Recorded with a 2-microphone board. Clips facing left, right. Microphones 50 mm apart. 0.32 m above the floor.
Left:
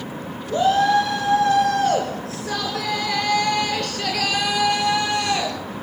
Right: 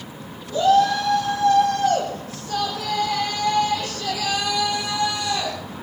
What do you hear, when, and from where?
0.5 s a shout: 55° left (ahead or behind), 3.5 m